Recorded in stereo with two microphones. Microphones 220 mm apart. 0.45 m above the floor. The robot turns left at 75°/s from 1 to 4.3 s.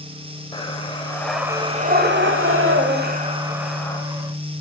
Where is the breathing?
25° left, 1.0 m; by 4.0 s 155° left, 1.0 m.